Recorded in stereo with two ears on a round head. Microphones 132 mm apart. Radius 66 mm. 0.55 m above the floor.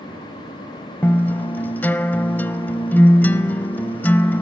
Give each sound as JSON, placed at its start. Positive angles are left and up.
{"t": 1.0, "sound": "a guitar", "side_deg": 10, "distance_m": 0.6}